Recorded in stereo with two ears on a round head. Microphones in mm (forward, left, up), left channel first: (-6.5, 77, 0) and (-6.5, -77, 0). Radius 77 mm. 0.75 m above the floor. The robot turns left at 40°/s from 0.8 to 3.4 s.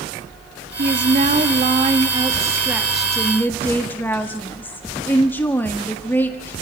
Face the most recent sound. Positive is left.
turn(degrees=165)